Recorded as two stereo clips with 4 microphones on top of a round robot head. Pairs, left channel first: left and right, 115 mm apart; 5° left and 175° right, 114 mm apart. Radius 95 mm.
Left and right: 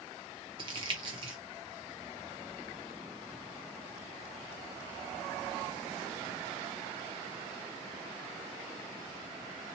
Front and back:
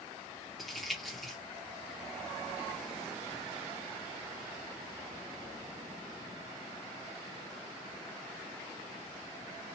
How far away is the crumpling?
About 0.8 m.